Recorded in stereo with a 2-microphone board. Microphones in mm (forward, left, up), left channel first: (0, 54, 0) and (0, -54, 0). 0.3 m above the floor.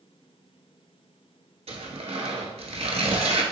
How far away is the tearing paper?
About 0.8 m.